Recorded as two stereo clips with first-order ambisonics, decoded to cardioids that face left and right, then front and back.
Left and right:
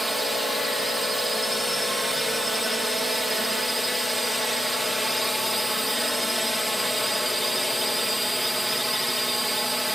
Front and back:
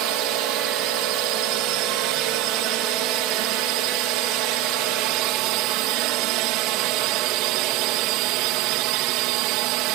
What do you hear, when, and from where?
0.0 s a drone: straight behind